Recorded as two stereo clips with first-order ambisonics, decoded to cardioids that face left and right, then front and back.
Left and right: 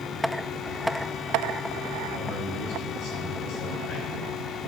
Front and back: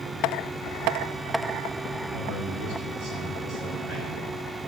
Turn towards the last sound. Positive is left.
turn(degrees=115)